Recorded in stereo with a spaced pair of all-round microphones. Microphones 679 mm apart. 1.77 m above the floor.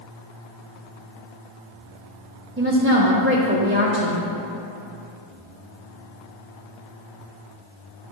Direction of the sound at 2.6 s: 20° right (ahead or behind).